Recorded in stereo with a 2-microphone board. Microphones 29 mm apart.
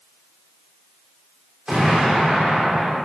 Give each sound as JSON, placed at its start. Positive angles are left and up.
{"t": 1.7, "sound": "an explosion", "side_deg": -30, "distance_m": 1.0}